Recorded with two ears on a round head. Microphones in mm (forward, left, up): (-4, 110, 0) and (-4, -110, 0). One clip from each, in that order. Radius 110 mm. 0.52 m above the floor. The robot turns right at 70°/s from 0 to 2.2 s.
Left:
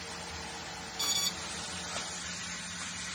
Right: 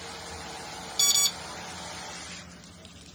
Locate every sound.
1.0 s an alarm: 45° right (ahead or behind), 0.5 m; by 1.3 s 35° right (ahead or behind), 0.5 m